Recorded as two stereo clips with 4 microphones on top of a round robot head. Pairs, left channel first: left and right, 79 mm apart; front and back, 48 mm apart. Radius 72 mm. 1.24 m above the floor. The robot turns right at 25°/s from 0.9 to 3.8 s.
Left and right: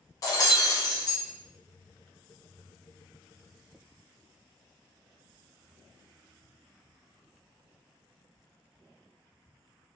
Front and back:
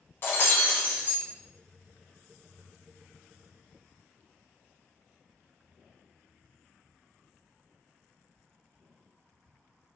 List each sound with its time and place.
0.2 s breaking glass: 50° left, 0.6 m; by 1.2 s 55° left, 0.6 m